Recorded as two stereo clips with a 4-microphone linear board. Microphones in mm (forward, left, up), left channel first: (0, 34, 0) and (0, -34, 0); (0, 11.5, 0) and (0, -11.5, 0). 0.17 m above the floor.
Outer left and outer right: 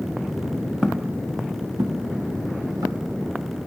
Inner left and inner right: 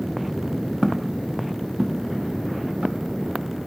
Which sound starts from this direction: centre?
Footsteps, at 0.8 s.